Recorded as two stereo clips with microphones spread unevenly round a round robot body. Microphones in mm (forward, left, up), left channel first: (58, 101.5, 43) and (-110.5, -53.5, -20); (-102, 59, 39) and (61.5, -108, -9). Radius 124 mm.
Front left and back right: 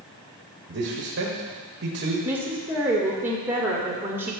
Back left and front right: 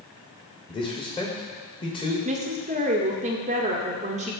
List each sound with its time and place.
0.7 s a man speaking: 155° right, 1.9 m
2.2 s a woman speaking: 75° right, 1.5 m